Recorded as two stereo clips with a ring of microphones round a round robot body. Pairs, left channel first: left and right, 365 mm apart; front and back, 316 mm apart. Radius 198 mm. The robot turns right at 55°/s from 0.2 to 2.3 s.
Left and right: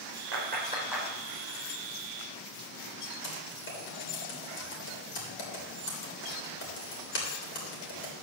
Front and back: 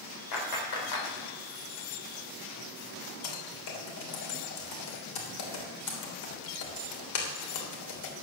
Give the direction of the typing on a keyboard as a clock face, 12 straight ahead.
11 o'clock.